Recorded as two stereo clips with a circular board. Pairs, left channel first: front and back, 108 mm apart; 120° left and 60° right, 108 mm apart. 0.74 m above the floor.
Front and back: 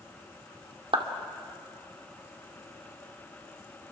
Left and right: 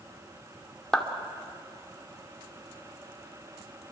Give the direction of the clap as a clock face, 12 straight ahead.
5 o'clock.